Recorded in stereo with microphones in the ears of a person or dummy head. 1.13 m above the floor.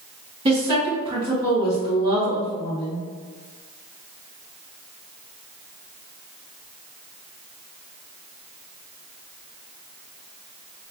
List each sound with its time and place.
0.5 s a woman speaking: 30° right (ahead or behind), 1.5 m